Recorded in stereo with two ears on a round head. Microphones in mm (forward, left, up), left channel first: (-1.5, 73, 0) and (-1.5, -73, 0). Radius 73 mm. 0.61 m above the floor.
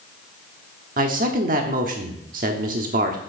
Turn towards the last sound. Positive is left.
turn(degrees=-55)  # may be behind; listen again after turning